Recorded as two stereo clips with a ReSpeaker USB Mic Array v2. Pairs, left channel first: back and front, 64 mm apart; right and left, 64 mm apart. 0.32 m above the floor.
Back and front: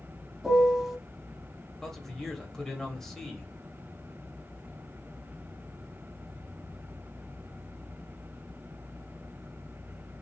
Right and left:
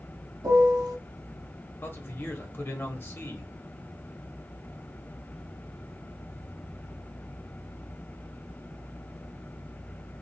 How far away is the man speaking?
About 1.0 m.